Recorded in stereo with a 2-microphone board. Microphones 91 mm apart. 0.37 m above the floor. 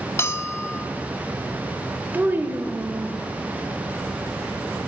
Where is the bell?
30° left (ahead or behind), 0.5 m.